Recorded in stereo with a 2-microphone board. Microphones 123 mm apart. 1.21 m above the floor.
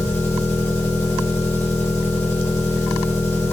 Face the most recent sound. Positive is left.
turn(degrees=25)  # may be behind; listen again after turning